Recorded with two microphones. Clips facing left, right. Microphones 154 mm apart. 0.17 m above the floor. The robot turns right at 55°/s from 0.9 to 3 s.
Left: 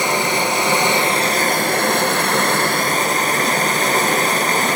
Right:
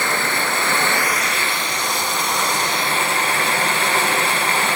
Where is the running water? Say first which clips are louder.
Left 4 dB; 20° left, 1.2 m; by 4.8 s 135° left, 1.2 m.